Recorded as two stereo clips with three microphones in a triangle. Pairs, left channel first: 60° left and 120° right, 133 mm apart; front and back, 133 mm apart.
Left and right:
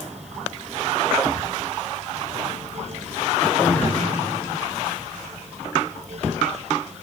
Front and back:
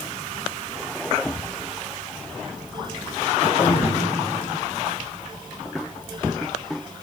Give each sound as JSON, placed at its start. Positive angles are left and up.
{"t": 3.4, "sound": "throat clearing", "azimuth_deg": -25, "distance_m": 4.5}